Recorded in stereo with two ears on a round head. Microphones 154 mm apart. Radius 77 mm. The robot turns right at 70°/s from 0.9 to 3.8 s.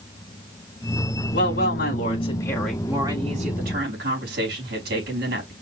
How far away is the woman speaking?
About 3.5 m.